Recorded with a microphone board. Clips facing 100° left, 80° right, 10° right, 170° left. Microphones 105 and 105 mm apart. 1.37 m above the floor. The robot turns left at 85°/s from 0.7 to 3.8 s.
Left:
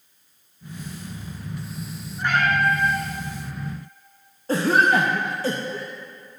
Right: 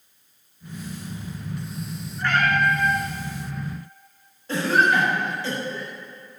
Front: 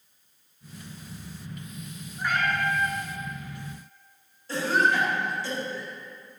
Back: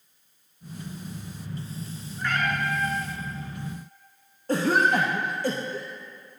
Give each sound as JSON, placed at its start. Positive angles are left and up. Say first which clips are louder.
{"t": 2.2, "sound": "a cat meowing", "louder": "even, front 1 dB", "azimuth_deg": 55, "distance_m": 1.4}
{"t": 4.5, "sound": "a cough", "louder": "left 2 dB, back 2 dB", "azimuth_deg": 140, "distance_m": 0.8}